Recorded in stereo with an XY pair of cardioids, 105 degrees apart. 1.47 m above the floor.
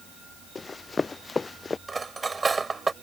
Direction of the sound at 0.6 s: 25° left.